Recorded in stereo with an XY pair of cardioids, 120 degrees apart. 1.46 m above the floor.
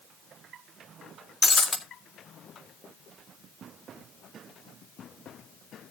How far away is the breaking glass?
About 2 m.